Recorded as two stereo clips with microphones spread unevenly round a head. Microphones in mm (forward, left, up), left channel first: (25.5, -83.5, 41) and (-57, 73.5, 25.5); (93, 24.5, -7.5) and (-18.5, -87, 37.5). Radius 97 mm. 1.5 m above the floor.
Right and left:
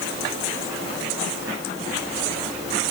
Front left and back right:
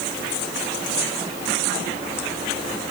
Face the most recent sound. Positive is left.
No sound to turn to.